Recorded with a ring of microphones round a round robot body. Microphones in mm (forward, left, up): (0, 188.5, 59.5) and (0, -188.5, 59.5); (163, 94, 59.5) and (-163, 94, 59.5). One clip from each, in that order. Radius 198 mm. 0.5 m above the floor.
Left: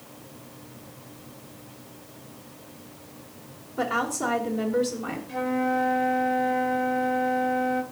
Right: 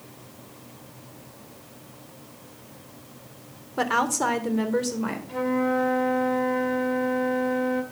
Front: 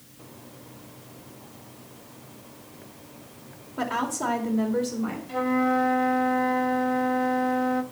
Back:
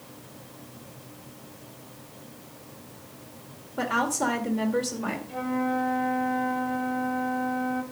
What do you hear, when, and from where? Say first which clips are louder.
3.8 s a woman speaking: right 3 dB, back 2 dB; 95° right, 2 m; by 5.2 s 140° right, 2.5 m
5.3 s a flute: right 1 dB, front 6 dB; 10° right, 1.3 m